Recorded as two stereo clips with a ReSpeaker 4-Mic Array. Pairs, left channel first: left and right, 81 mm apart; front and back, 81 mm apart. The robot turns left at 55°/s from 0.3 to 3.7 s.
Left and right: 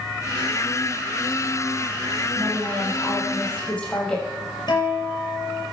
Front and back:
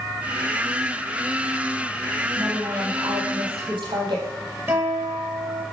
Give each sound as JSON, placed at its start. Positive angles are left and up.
{"t": 2.4, "sound": "a woman speaking", "azimuth_deg": -120, "distance_m": 6.5}
{"t": 4.7, "sound": "a guitar", "azimuth_deg": 120, "distance_m": 5.5}